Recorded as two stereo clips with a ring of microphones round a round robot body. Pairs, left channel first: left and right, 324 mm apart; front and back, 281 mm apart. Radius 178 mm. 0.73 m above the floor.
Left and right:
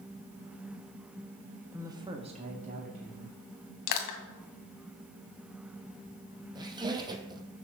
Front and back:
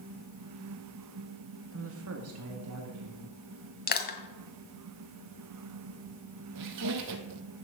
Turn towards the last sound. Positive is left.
turn(degrees=-165)